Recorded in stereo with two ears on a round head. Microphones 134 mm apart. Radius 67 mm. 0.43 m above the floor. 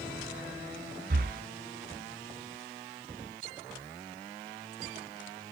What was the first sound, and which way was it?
Breathing, 65° right (ahead or behind).